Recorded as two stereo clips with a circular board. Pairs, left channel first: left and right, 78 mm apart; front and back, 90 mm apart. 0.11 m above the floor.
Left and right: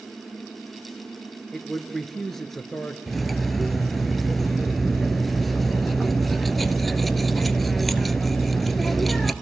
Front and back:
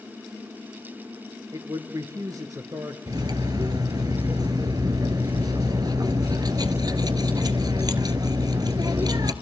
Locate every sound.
1.5 s a man speaking: 175° left, 1.5 m
3.1 s cutlery clinking: straight behind, 1.0 m